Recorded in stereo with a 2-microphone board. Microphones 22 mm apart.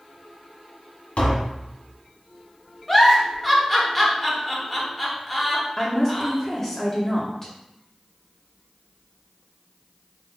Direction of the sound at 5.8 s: 20° left (ahead or behind).